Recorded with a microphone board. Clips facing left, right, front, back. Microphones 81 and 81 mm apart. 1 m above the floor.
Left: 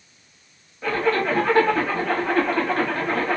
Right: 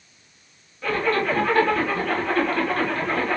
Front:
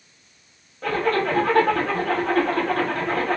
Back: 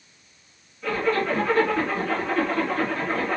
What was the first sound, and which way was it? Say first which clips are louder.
A zipper: left 1 dB, front 2 dB; 20° left.